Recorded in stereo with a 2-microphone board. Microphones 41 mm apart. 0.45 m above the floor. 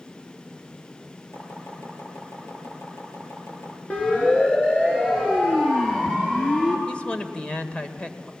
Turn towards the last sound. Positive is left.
turn(degrees=30)  # may be behind; listen again after turning